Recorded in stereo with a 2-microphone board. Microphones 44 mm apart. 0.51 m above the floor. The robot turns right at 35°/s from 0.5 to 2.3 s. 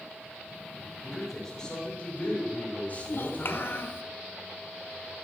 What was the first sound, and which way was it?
A man speaking, 15° right.